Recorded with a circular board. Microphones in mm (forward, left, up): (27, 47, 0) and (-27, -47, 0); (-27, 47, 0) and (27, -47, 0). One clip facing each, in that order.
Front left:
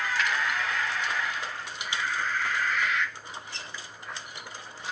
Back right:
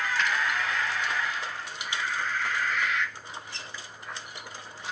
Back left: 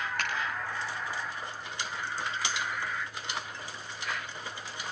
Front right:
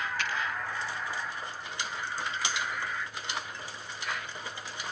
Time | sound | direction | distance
0.2 | a finger snap | 150° left | 9 m